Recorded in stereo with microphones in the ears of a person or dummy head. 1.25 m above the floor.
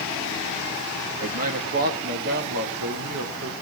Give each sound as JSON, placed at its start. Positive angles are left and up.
{"t": 1.2, "sound": "a man speaking", "side_deg": -40, "distance_m": 2.0}